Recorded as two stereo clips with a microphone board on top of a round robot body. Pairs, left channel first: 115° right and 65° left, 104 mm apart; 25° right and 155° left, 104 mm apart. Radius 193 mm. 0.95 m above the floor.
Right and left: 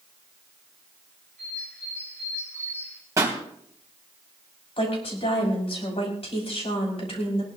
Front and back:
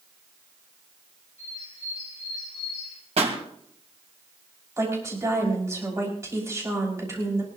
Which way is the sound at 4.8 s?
140° right.